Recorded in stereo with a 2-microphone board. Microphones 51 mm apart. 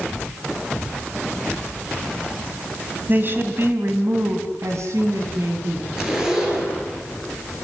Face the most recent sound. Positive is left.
turn(degrees=-10)  # may be behind; listen again after turning